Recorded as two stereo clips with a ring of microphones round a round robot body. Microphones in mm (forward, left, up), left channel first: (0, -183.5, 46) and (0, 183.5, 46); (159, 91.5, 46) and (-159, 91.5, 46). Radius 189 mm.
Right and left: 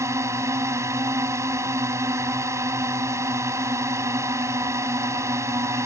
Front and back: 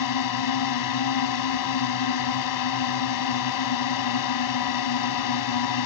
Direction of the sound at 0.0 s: 10° left.